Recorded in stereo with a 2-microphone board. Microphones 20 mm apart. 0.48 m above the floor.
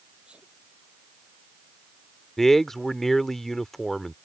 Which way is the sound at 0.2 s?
80° right.